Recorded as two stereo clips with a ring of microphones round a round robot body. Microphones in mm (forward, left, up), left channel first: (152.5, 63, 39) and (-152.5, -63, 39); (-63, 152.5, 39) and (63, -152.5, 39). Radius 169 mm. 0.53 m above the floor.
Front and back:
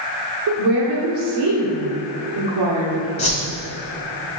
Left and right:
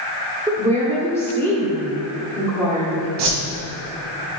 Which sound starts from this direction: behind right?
A woman speaking, at 0.5 s.